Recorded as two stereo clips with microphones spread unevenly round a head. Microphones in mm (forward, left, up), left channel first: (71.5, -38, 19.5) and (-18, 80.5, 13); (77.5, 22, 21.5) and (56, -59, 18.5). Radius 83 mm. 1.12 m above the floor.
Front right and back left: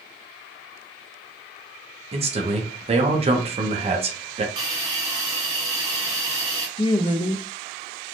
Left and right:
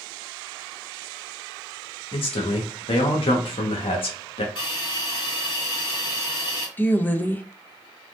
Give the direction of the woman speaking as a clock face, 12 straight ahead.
12 o'clock.